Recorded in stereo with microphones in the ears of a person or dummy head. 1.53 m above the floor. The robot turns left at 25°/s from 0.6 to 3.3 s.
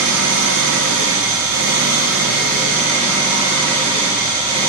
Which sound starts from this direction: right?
An engine running, at 0.0 s.